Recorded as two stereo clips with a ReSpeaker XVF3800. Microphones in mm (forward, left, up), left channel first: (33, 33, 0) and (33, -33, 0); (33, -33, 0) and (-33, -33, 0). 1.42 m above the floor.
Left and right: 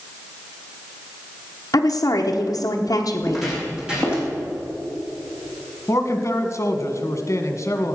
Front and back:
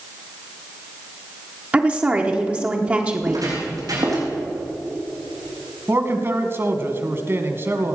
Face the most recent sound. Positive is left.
turn(degrees=130)